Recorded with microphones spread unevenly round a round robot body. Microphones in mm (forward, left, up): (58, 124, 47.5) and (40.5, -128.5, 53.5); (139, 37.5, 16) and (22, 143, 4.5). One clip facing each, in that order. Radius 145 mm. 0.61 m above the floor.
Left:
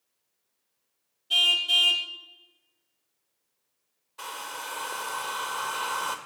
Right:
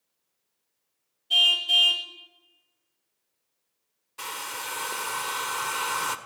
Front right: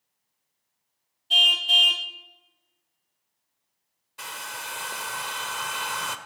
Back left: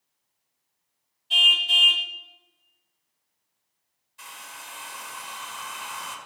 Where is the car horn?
5° left, 2.5 m.